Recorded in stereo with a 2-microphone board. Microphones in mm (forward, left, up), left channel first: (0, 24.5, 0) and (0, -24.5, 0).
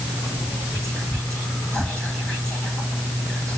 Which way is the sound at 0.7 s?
25° left (ahead or behind).